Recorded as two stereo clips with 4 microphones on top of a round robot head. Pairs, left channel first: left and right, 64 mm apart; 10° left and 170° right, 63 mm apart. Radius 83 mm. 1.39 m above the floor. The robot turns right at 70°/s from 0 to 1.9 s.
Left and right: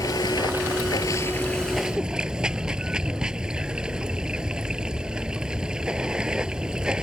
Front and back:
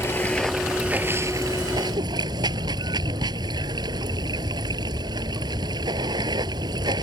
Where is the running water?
60° left; by 7.0 s 170° right.